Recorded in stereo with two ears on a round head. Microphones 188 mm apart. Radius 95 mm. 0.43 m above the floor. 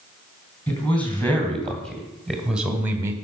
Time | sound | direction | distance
0.7 | a man speaking | 10° left (ahead or behind) | 3.5 m